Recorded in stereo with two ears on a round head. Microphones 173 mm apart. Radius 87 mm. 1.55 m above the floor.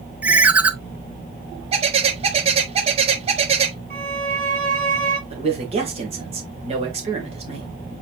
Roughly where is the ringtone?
Centre.